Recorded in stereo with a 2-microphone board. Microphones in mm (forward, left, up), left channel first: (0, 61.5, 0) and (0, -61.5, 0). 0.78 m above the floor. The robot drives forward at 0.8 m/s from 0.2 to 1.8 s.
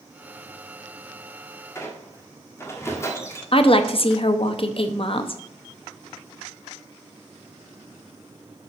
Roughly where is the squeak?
Left.